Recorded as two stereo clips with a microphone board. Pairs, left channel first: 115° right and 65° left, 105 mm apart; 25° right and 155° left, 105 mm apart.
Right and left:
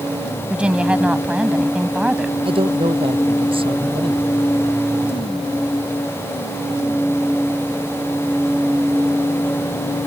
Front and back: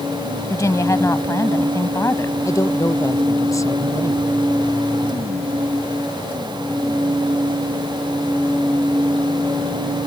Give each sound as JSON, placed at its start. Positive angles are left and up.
{"t": 0.5, "sound": "a woman speaking", "azimuth_deg": -5}
{"t": 2.5, "sound": "a man speaking", "azimuth_deg": 35}